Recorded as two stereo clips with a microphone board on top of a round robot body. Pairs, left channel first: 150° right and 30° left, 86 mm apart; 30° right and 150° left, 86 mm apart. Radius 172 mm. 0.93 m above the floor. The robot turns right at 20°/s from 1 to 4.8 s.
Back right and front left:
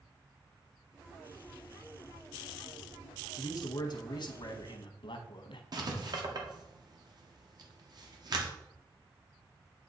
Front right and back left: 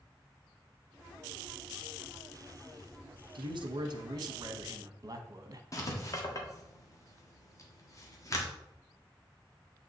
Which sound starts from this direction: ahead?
Writing, at 5.7 s.